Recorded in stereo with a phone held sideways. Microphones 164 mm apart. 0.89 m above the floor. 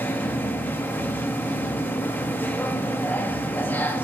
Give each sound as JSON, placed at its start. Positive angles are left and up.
{"t": 0.0, "sound": "a machine running", "side_deg": 10, "distance_m": 1.0}